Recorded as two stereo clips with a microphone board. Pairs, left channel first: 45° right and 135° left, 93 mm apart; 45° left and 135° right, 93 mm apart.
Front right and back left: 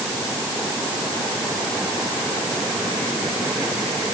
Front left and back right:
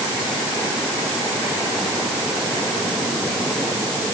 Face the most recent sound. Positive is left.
No sound to turn to.